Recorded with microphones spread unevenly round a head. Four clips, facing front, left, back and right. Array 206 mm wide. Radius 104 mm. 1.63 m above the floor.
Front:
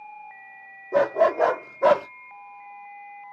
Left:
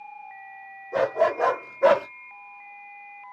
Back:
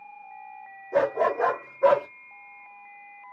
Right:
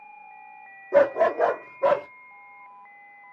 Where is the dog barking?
55° right, 1.4 m; by 2.1 s 50° left, 1.3 m.